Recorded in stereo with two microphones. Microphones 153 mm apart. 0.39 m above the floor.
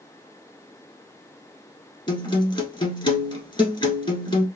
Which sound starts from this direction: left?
A guitar, at 2.1 s.